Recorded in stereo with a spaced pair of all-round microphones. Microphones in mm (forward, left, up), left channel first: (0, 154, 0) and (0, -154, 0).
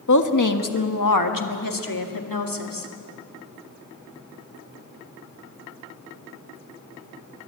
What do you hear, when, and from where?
0.1 s a woman speaking: 60° left (ahead or behind), 1.5 m; by 2.9 s 80° left, 2.5 m